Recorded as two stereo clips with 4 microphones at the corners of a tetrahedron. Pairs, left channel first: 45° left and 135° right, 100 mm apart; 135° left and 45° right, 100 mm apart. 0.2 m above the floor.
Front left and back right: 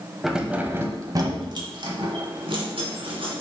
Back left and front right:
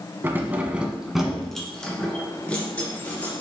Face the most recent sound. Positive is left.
turn(degrees=-150)